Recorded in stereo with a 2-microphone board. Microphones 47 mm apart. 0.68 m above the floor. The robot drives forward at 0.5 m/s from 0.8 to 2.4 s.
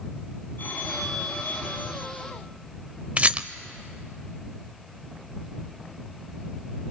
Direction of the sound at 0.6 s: 45° left (ahead or behind).